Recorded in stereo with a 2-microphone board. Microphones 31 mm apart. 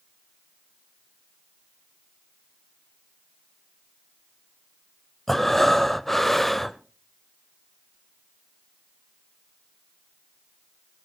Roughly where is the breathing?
Centre.